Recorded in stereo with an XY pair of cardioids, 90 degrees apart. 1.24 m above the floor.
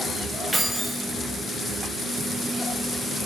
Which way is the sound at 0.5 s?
25° right.